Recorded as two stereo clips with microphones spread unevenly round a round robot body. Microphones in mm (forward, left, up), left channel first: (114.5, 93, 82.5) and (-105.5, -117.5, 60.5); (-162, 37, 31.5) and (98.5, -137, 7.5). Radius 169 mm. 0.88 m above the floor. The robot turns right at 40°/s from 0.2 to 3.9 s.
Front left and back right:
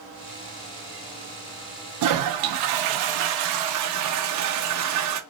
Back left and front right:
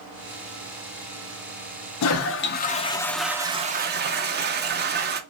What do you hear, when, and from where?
2.0 s a toilet flushing: 170° right, 0.6 m; by 5.2 s 95° right, 0.6 m